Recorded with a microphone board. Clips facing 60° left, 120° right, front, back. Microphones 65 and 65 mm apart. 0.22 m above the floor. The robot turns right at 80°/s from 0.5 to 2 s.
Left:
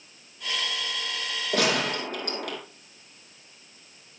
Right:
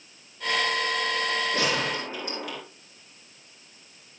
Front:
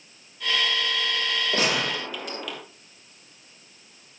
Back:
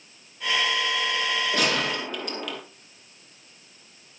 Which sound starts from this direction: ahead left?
A gunshot, at 1.5 s.